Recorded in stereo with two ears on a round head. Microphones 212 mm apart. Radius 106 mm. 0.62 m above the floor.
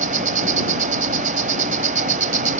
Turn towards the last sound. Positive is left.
turn(degrees=-35)  # may be behind; listen again after turning